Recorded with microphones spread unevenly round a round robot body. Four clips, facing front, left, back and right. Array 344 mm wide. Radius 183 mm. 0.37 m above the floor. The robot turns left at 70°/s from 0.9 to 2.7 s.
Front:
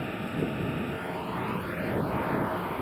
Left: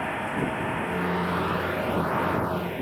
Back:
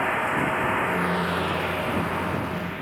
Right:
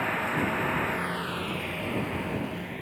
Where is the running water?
170° right; by 2.8 s 65° left.